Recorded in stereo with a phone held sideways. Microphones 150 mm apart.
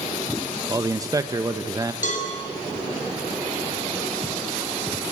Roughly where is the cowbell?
Left.